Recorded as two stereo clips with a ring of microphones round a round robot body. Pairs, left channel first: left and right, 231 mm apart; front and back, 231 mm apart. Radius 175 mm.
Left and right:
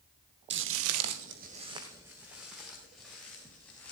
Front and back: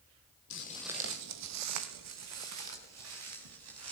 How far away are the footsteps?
About 0.8 m.